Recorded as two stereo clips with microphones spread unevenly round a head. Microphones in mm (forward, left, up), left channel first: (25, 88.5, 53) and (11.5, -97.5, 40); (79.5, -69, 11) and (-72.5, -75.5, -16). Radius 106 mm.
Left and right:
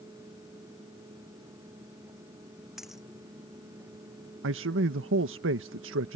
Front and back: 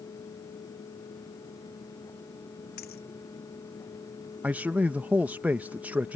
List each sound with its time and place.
2.8 s a dropped coin: 5° right
4.4 s a man speaking: 100° right